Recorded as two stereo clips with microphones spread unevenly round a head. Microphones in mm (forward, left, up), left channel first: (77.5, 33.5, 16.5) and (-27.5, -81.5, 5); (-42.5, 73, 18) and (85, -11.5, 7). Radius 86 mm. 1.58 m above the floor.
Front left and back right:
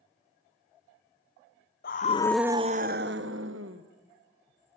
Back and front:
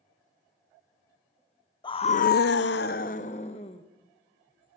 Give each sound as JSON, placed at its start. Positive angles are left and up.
{"t": 1.8, "sound": "a scream", "azimuth_deg": 85, "distance_m": 0.9}